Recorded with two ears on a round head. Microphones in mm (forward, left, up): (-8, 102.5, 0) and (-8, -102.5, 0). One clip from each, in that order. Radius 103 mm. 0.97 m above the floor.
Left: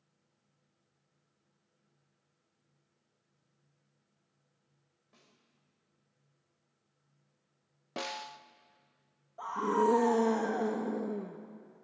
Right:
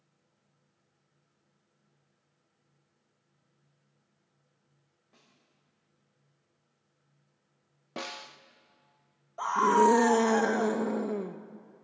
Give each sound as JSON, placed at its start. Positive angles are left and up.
{"t": 5.1, "sound": "a snare drum", "side_deg": 15, "distance_m": 4.5}
{"t": 8.0, "sound": "a snare drum", "side_deg": 10, "distance_m": 0.5}
{"t": 9.4, "sound": "a scream", "side_deg": -45, "distance_m": 0.8}